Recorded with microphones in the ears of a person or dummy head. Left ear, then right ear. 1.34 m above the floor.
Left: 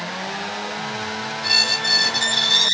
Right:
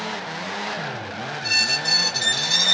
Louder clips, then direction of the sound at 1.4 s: Left 2 dB; 55° left (ahead or behind).